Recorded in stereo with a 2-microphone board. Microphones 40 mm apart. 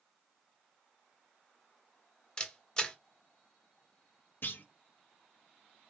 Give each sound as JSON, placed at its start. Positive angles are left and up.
{"t": 2.4, "sound": "a camera shutter", "side_deg": 20, "distance_m": 0.8}
{"t": 4.4, "sound": "a clunk", "side_deg": 55, "distance_m": 0.6}